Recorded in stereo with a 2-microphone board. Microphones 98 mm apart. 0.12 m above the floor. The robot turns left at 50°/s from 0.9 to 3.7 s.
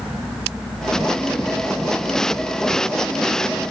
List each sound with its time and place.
Only background noise.